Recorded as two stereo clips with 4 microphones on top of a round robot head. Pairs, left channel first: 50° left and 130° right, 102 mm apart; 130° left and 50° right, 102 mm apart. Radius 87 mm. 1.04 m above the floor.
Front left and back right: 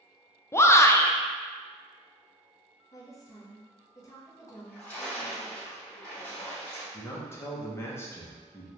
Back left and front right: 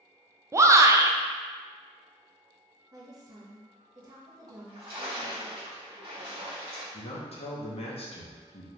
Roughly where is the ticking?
No ticking in this recording.